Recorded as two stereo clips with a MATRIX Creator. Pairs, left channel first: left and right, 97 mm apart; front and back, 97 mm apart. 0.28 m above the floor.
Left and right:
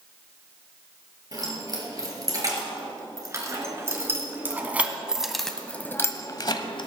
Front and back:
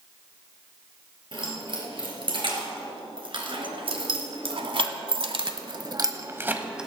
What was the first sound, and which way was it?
Keys jangling, 145° right.